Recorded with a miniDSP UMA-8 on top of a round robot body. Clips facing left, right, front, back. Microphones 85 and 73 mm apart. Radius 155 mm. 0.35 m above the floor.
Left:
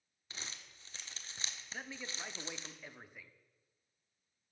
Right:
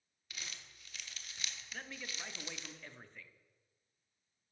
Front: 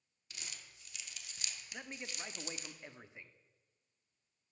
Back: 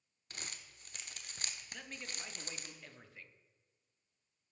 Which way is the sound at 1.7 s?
25° left.